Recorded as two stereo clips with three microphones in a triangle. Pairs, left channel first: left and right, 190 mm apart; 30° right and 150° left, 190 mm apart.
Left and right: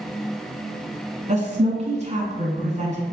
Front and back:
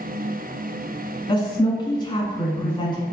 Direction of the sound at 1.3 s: 80° right.